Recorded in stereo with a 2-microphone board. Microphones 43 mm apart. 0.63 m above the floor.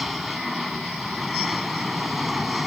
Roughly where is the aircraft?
Centre.